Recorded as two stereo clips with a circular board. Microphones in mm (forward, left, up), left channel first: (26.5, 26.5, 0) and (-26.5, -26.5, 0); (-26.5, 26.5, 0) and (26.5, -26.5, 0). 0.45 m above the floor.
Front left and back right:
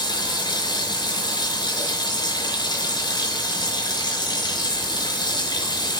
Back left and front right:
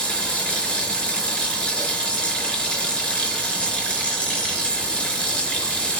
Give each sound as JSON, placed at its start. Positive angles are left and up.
{"t": 0.0, "sound": "running water", "azimuth_deg": 60, "distance_m": 4.5}